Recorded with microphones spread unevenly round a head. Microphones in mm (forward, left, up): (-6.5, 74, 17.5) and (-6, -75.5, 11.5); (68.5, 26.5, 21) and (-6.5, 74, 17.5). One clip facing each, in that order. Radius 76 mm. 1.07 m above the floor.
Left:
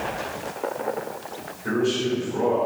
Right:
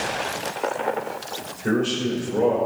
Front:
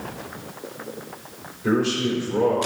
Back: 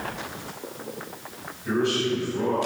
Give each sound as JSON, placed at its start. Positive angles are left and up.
{"t": 1.6, "sound": "a man speaking", "azimuth_deg": -30, "distance_m": 4.5}